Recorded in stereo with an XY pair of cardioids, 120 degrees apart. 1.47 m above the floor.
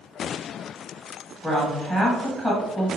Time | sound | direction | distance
1.4 | a woman speaking | 5° left | 1.5 m